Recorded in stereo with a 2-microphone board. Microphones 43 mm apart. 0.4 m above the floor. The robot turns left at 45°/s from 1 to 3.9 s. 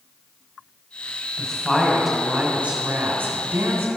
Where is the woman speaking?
25° left, 2.5 m; by 3.9 s 90° right, 2.5 m.